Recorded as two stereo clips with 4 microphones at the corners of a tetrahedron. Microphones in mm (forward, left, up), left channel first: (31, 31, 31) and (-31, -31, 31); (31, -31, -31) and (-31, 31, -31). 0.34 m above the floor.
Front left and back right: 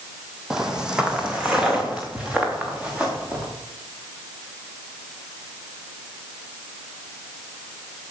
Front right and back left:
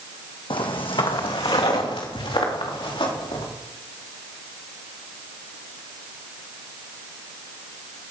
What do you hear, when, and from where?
0.5 s footsteps: 55° right, 1.0 m; by 3.5 s 60° right, 4 m